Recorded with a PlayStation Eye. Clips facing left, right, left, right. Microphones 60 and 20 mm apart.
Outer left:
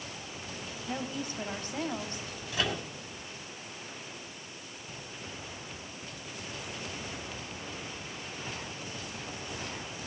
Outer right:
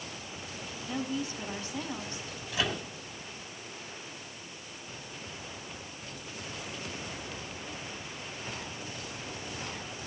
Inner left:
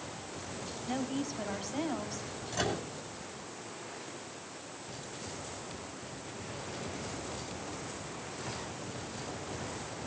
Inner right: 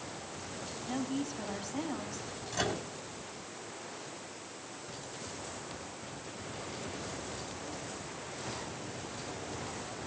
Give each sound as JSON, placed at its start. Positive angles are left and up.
{"t": 0.9, "sound": "a woman speaking", "side_deg": 55, "distance_m": 5.5}
{"t": 2.5, "sound": "a microwave", "side_deg": 5, "distance_m": 6.0}